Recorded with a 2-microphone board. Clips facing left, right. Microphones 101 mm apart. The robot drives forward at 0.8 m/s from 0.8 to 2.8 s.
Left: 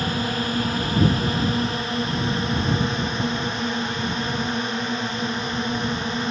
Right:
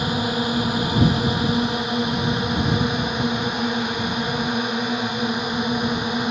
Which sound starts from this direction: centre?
A drone, at 0.0 s.